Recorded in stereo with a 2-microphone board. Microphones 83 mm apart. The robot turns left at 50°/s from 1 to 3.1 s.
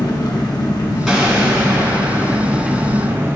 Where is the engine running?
75° left, 0.8 m; by 3.4 s 30° right, 0.8 m.